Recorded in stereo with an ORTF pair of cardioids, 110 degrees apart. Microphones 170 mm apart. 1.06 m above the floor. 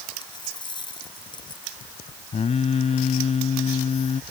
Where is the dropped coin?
25° left.